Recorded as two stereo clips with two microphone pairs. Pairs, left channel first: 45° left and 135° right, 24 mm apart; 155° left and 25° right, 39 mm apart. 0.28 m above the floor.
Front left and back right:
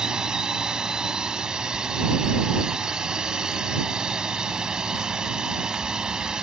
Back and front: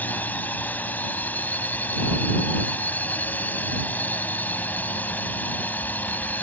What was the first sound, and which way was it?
A drone, 175° left.